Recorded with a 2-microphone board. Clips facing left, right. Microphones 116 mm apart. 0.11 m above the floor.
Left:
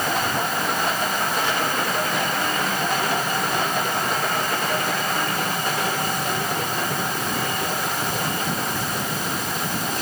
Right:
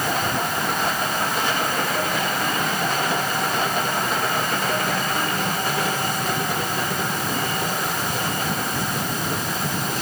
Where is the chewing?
I don't hear chewing.